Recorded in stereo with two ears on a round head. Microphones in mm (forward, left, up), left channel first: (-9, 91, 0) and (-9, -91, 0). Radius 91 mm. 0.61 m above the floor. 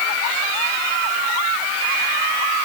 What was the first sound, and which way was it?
Only background noise.